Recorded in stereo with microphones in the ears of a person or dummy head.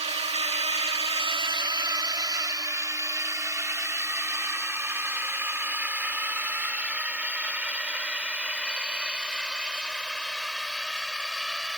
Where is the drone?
35° right (ahead or behind); by 11.8 s centre (ahead or behind).